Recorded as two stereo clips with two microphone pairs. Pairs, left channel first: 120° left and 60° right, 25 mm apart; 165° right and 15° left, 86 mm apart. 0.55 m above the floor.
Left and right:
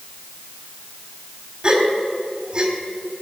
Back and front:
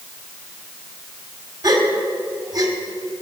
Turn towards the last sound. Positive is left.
turn(degrees=-20)